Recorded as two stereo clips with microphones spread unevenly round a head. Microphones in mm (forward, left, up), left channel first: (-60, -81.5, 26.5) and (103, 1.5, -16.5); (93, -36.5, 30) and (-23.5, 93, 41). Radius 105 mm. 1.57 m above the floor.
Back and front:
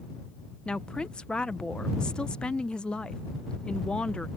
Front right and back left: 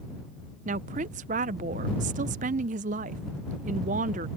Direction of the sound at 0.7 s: 140° left.